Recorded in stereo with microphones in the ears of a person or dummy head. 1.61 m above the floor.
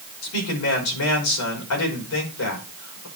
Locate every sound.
0.2 s a man speaking: 85° left, 5.5 m